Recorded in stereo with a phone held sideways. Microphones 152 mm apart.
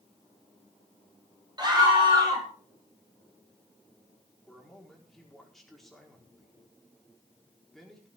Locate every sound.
1.6 s a scream: 30° right (ahead or behind), 6 m
4.5 s a man speaking: centre (ahead or behind), 4.5 m